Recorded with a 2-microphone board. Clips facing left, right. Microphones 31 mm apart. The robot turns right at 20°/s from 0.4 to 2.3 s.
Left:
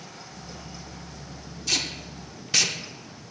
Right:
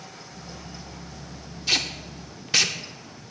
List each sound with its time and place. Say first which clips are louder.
1.7 s tape being pulled: right 3 dB; 25° right (ahead or behind), 0.6 m; by 2.8 s 15° right (ahead or behind), 0.6 m